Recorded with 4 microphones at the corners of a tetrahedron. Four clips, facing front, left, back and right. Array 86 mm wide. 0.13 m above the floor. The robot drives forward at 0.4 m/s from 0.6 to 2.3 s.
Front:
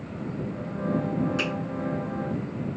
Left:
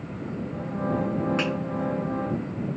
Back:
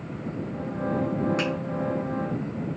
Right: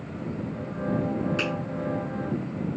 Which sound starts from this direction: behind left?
A finger snap, at 1.4 s.